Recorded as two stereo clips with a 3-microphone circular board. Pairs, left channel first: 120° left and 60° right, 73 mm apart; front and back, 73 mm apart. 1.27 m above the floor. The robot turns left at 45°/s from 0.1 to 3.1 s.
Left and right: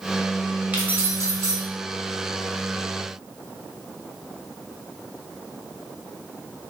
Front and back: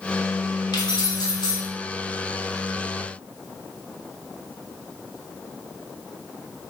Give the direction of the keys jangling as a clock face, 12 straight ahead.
12 o'clock.